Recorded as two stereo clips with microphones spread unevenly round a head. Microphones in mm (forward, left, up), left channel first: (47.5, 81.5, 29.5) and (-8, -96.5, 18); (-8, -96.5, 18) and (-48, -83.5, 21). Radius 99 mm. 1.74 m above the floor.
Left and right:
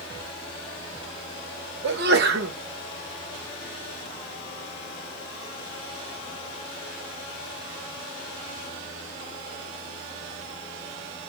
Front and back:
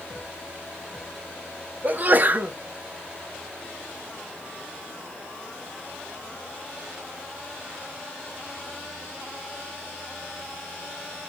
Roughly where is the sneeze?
Behind right.